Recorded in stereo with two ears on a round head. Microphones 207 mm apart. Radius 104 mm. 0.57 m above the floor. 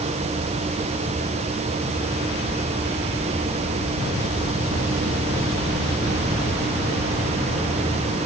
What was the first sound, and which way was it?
Only background noise.